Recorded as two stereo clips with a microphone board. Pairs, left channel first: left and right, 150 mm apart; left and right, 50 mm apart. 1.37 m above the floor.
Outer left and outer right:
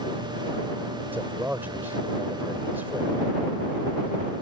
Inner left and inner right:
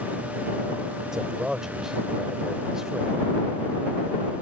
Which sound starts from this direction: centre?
A man speaking, at 1.1 s.